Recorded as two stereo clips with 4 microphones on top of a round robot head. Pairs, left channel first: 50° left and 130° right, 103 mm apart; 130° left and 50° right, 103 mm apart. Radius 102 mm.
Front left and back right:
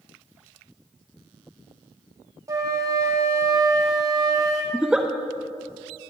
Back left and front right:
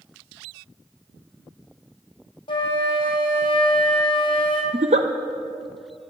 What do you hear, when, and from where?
2.5 s a flute: 170° left, 1.7 m
4.7 s a giggle: 50° right, 0.6 m